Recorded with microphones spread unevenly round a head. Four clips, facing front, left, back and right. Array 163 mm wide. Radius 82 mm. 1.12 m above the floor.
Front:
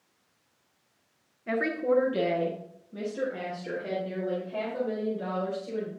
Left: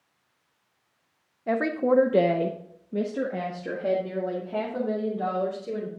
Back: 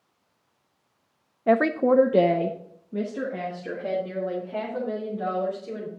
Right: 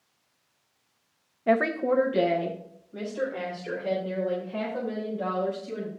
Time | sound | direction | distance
1.5 | a woman speaking | 165° right | 0.6 m